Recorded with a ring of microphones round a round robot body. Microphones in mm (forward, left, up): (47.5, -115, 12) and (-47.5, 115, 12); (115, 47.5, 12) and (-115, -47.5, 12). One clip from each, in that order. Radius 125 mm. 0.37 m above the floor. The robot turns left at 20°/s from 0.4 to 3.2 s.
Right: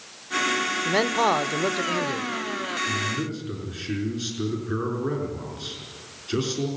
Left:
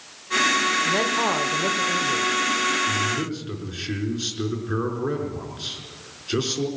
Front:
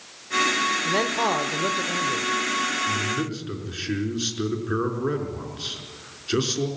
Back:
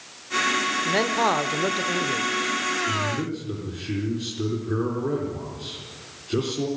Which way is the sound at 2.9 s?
45° left.